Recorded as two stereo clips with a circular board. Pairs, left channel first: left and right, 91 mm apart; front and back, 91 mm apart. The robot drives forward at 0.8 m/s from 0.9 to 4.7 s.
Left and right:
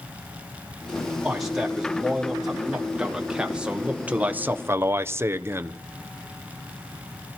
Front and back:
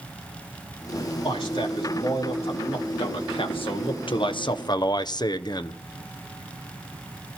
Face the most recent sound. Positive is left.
turn(degrees=-30)